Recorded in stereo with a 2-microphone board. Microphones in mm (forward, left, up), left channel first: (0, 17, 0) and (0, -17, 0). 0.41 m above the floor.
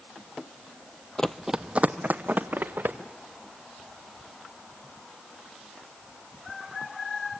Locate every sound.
1.2 s running footsteps: 25° left (ahead or behind), 0.5 m; by 3.0 s 70° right (ahead or behind), 2.0 m